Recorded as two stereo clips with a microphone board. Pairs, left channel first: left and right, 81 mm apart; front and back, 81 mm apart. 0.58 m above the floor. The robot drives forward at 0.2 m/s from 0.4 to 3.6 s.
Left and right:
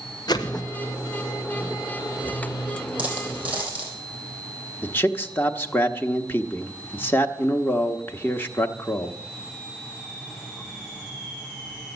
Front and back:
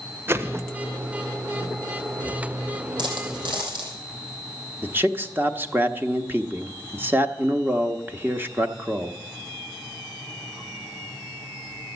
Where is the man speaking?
135° left, 0.8 m.